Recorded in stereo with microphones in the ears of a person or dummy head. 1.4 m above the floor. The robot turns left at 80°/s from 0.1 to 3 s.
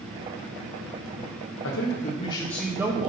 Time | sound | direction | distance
1.6 | a man speaking | 75° left | 1.5 m